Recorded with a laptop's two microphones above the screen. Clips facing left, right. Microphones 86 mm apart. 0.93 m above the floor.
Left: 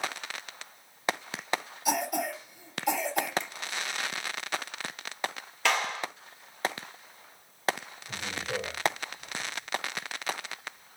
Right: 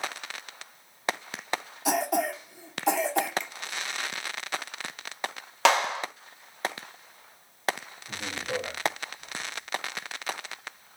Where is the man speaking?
60° right (ahead or behind), 2 m.